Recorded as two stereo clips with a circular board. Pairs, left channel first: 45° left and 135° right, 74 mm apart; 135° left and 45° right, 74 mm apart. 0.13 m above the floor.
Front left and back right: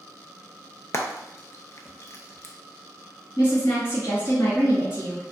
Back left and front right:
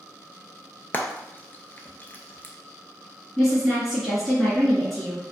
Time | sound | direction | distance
0.9 | frying | 80° left | 0.6 m
3.4 | a woman speaking | 55° left | 2.0 m